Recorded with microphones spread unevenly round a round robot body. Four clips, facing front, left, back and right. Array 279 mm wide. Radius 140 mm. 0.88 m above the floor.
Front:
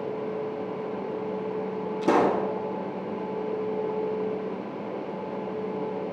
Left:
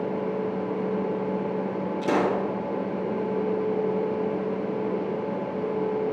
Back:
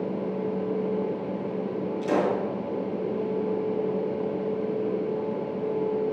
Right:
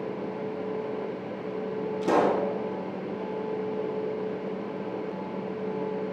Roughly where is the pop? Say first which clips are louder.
Right 1 dB, front 3 dB; ahead.